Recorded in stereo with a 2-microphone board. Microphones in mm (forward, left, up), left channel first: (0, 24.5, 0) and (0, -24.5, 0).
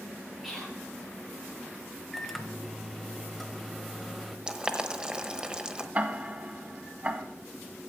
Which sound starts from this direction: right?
Ticking, at 6.0 s.